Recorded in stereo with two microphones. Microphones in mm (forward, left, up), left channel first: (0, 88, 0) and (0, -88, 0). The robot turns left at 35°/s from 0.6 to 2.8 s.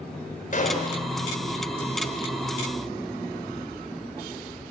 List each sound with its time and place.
0.5 s a gunshot: 50° left (ahead or behind), 4.5 m; by 1.0 s 65° left (ahead or behind), 4.5 m